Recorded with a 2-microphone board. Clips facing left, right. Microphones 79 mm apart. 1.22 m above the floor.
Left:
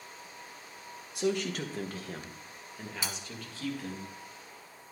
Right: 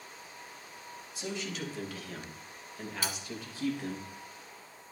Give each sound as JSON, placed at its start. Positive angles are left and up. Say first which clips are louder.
{"t": 1.1, "sound": "a man speaking", "louder": "left 8 dB", "side_deg": 60, "distance_m": 1.7}
{"t": 3.0, "sound": "cutlery clinking", "louder": "right 2 dB", "side_deg": 20, "distance_m": 1.0}